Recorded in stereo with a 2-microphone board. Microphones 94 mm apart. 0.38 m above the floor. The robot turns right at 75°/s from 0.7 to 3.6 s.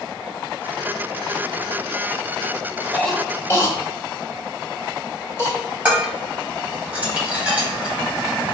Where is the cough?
5° left (ahead or behind), 1.5 m; by 5.5 s 30° left (ahead or behind), 1.5 m.